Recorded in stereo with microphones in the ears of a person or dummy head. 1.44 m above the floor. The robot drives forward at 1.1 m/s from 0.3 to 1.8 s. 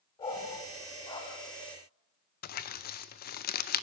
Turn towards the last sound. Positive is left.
turn(degrees=45)  # may be behind; listen again after turning